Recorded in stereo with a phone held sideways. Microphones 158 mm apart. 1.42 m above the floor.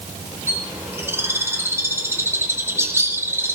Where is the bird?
15° right (ahead or behind), 4.5 m.